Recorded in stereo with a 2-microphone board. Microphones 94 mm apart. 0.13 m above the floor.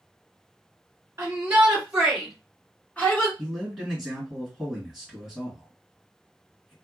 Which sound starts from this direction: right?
A shout, at 1.2 s.